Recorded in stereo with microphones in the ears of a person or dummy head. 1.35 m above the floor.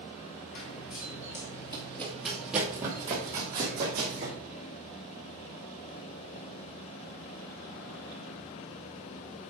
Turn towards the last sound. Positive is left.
turn(degrees=-35)  # may be behind; listen again after turning